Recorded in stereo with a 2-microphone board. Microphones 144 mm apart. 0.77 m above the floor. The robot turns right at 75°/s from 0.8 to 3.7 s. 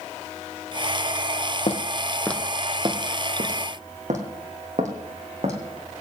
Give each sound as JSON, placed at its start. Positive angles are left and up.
{"t": 1.7, "sound": "footsteps", "side_deg": 55, "distance_m": 1.5}